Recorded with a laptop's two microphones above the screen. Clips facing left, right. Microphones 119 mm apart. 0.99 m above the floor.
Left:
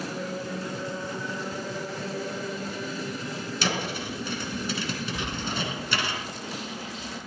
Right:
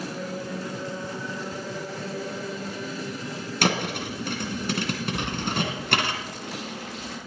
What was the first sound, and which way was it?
A thud, 65° right (ahead or behind).